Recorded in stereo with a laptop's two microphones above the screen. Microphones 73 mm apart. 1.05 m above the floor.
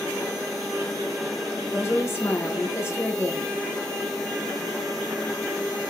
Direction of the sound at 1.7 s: 35° left (ahead or behind).